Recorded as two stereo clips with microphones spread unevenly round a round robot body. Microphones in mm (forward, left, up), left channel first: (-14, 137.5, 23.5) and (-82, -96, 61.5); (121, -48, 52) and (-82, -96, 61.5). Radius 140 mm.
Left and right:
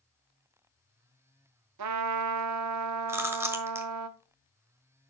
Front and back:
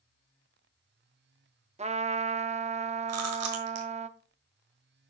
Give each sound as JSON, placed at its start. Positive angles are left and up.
{"t": 1.8, "sound": "a trumpet", "azimuth_deg": -110, "distance_m": 0.7}
{"t": 3.1, "sound": "chewing", "azimuth_deg": 175, "distance_m": 1.4}